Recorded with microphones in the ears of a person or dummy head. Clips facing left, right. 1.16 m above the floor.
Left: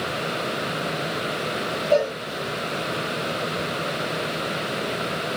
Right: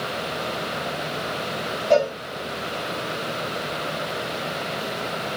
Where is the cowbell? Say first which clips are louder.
Right 2 dB; 50° right (ahead or behind), 3.5 m.